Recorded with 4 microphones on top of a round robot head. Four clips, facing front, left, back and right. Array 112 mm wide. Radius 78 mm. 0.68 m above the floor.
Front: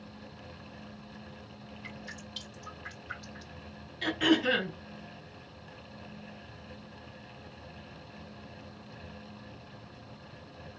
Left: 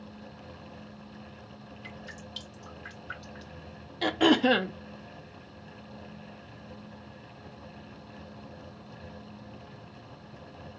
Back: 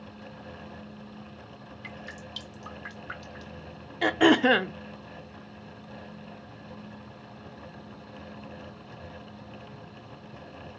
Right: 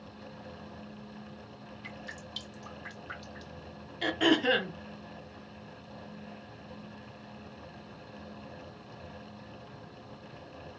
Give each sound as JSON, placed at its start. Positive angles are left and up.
{"t": 1.8, "sound": "dripping", "azimuth_deg": -160, "distance_m": 3.0}
{"t": 4.0, "sound": "throat clearing", "azimuth_deg": 150, "distance_m": 0.5}